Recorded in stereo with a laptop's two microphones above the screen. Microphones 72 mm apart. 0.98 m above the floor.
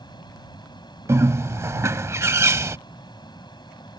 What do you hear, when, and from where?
0.0 s a fan: 85° left
1.1 s a bird: 40° right (ahead or behind)